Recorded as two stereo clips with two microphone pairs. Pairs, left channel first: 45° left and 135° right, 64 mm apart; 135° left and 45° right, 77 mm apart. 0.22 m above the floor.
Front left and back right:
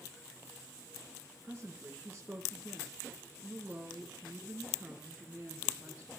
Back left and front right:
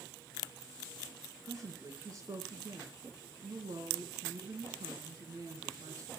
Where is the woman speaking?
65° right, 3 m.